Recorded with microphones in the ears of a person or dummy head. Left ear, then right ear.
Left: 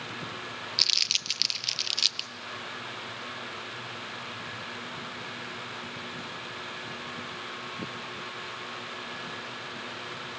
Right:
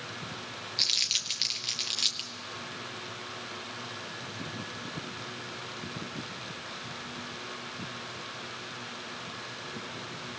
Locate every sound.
0.8 s crumpling: 20° left (ahead or behind), 0.7 m